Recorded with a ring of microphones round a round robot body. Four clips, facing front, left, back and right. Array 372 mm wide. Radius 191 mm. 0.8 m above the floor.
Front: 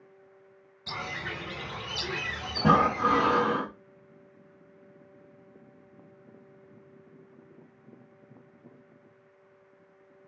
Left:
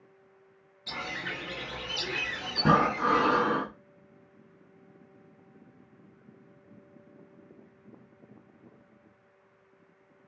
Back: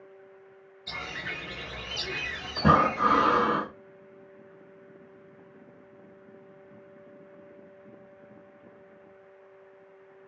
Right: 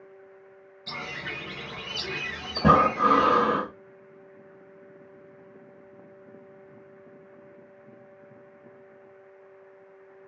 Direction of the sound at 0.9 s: 15° right.